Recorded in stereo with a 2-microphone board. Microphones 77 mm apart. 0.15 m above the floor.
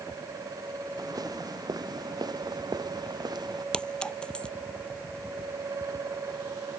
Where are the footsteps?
55° right (ahead or behind); by 3.6 s 60° right (ahead or behind).